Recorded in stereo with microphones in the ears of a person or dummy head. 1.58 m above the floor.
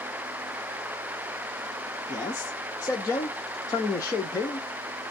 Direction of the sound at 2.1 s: 10° left (ahead or behind).